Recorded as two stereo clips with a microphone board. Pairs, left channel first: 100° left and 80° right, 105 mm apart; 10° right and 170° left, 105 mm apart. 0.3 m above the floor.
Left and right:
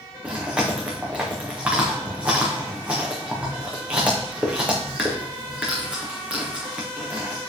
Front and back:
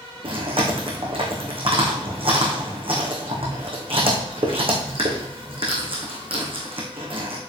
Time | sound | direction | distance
0.2 | chewing | 160° right | 3.5 m